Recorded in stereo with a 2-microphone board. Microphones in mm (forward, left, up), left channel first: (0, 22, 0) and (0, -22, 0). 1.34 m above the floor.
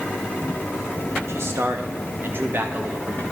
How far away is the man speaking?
About 2.5 m.